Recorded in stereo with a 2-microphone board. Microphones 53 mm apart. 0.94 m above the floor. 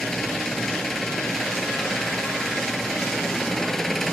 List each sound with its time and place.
0.0 s an engine running: 5° left (ahead or behind)